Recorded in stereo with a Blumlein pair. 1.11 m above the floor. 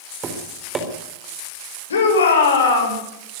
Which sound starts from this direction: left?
A shout, at 1.9 s.